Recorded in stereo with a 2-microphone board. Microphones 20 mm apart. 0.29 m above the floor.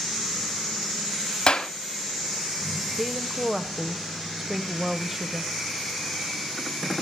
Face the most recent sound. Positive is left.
turn(degrees=-15)  # may be behind; listen again after turning